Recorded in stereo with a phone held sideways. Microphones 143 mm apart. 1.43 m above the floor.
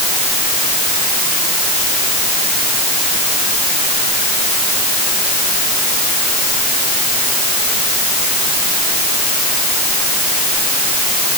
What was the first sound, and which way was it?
Only background noise.